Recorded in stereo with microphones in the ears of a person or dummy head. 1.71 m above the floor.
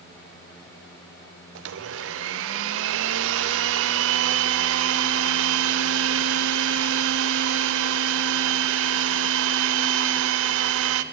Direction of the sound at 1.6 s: 80° right.